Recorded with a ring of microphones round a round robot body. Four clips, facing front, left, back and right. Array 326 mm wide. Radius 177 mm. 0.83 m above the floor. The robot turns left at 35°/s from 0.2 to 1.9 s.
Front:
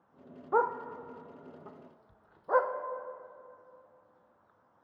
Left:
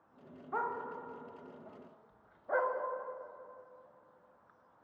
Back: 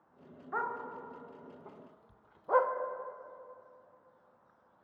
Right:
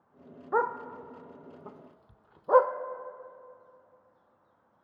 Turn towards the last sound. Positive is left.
turn(degrees=-85)